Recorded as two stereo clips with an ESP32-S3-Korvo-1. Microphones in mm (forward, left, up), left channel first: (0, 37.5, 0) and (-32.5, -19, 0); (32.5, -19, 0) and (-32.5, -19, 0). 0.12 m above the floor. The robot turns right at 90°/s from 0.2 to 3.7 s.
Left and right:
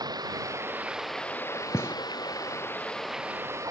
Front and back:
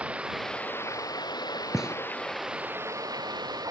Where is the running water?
110° right; by 3.7 s 155° right.